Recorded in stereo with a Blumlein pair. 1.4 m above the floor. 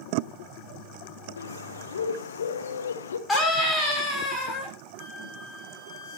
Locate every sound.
1.4 s a bird: 65° left, 1.1 m
3.3 s a scream: 15° left, 5.5 m
5.0 s a flute: 25° left, 8 m